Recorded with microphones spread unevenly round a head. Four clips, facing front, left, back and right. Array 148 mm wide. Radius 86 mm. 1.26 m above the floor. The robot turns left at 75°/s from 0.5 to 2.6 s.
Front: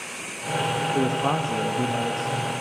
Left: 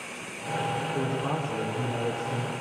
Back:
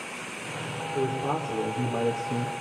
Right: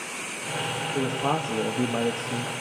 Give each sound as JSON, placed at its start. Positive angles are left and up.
{"t": 0.9, "sound": "a man speaking", "azimuth_deg": -30, "distance_m": 2.0}